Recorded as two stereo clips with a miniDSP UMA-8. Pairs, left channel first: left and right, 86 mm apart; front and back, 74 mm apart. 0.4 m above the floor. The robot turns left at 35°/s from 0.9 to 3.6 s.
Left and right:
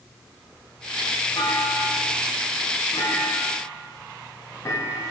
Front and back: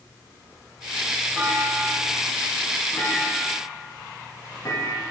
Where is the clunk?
115° left, 2 m; by 5.0 s 40° left, 2 m.